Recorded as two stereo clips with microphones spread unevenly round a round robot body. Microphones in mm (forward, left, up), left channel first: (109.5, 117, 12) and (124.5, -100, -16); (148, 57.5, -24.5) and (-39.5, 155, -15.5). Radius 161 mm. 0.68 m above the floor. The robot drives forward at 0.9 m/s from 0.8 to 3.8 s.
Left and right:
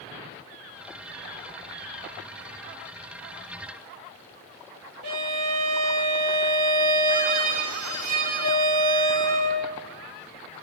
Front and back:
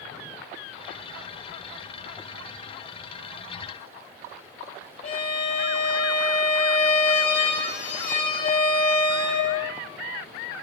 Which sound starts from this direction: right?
A violin, at 5.0 s.